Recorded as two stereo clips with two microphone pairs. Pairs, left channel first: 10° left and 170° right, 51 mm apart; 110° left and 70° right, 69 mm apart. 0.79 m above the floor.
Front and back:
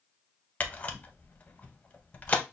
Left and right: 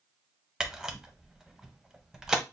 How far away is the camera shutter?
About 0.6 m.